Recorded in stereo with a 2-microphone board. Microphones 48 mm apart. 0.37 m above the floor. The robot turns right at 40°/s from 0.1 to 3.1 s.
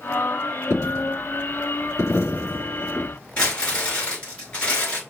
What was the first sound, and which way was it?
A dropped coin, 45° left (ahead or behind).